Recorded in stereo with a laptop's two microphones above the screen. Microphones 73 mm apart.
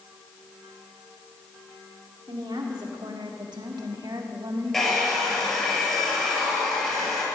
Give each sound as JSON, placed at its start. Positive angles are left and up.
{"t": 2.3, "sound": "a woman speaking", "side_deg": -75, "distance_m": 2.5}
{"t": 4.7, "sound": "a hair dryer", "side_deg": 5, "distance_m": 6.0}